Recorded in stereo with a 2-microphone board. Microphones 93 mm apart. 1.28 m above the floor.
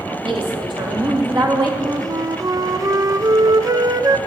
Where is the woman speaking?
65° right (ahead or behind), 3 m; by 1.7 s 40° right (ahead or behind), 2 m.